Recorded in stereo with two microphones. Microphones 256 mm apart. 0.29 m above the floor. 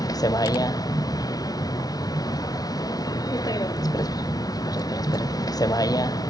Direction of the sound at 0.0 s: 15° left (ahead or behind).